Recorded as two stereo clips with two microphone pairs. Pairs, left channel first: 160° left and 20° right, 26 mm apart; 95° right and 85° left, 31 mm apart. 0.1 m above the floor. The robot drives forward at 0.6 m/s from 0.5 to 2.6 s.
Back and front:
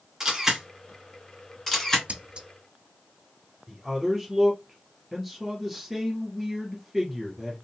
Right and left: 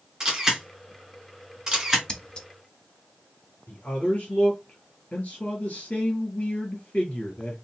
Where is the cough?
I don't hear a cough.